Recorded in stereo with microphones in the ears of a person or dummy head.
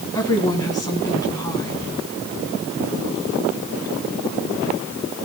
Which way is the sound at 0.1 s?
15° left (ahead or behind).